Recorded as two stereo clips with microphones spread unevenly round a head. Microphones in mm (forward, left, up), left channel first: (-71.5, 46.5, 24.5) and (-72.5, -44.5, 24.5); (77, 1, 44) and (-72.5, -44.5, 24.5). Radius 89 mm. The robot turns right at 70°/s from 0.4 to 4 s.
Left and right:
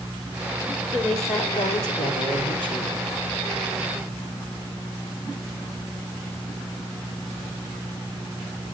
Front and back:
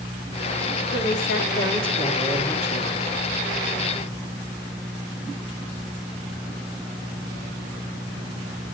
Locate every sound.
0.9 s a woman speaking: 5° right, 3.5 m; by 3.1 s 150° left, 3.5 m